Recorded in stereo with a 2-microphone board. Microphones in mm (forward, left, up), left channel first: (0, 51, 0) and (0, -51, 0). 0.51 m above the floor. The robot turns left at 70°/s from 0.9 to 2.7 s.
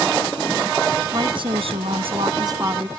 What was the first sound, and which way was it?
A woman speaking, 40° right.